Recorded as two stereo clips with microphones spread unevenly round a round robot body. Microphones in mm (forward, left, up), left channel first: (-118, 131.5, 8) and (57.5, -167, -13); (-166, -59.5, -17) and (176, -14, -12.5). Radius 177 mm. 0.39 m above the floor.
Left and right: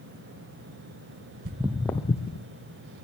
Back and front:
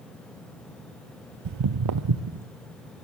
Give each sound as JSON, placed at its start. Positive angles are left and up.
{"t": 1.4, "sound": "footsteps", "azimuth_deg": 0, "distance_m": 0.5}